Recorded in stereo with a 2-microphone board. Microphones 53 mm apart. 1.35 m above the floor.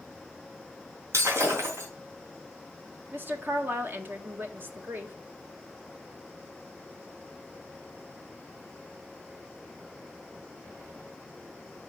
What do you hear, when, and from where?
1.1 s breaking glass: 65° right (ahead or behind), 4 m
3.1 s a woman speaking: 40° right (ahead or behind), 1.7 m